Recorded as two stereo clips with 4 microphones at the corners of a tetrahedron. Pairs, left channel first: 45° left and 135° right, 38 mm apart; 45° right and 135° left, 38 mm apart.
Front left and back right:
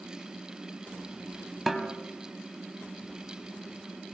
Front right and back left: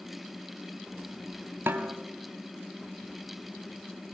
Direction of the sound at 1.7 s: 145° left.